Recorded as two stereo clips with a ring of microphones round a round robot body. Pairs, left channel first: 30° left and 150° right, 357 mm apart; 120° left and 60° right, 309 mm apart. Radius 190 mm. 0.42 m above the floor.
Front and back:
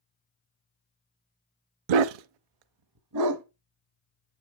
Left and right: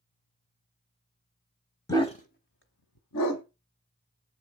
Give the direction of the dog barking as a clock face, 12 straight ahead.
5 o'clock.